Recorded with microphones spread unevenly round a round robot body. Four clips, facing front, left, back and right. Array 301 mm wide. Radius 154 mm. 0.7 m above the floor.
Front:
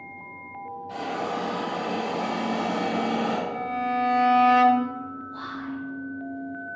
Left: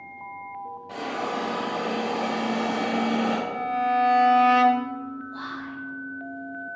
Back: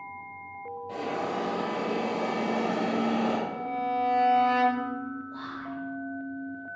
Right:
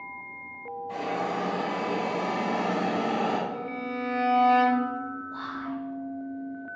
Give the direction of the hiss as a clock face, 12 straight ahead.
7 o'clock.